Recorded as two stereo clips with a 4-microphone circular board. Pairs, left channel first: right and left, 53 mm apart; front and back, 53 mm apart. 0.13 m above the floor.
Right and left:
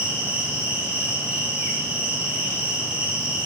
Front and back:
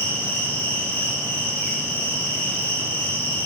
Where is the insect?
40° left, 9.5 m.